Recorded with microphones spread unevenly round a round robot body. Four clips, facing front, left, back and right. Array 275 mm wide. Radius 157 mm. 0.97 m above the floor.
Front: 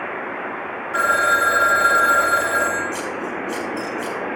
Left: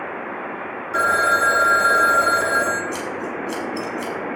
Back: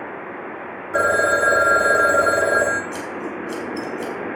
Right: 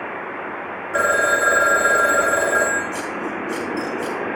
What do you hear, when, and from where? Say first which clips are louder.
0.9 s a phone ringing: even, back 1 dB; 175° right, 0.7 m
2.9 s scissors: right 1 dB, front 2 dB; 115° left, 5 m